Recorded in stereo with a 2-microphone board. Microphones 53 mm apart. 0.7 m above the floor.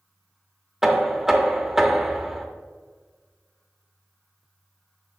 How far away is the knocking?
About 0.7 m.